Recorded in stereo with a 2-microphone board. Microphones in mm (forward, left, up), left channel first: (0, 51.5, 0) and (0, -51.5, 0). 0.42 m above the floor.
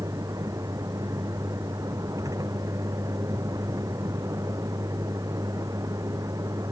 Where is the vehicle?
35° right (ahead or behind).